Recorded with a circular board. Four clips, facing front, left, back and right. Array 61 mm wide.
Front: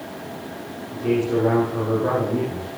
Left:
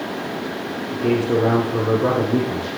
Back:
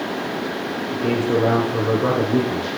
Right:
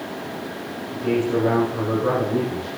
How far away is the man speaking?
About 7 m.